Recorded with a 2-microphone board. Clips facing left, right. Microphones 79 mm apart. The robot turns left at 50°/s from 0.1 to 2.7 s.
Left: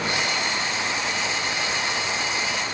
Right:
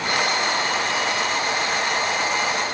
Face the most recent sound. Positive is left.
No sound to turn to.